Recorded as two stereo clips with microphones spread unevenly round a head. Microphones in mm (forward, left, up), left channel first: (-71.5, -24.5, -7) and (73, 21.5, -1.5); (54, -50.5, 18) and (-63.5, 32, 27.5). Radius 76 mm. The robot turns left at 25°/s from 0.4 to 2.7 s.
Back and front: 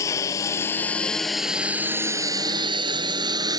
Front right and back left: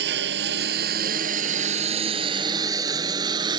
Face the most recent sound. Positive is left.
turn(degrees=85)